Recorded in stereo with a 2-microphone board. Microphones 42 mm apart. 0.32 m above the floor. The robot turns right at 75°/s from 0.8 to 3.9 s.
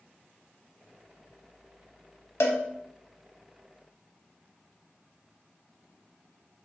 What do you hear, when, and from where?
2.4 s a cowbell: 70° left (ahead or behind), 0.6 m